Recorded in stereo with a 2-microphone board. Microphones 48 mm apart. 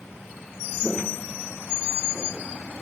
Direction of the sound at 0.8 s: 15° left (ahead or behind).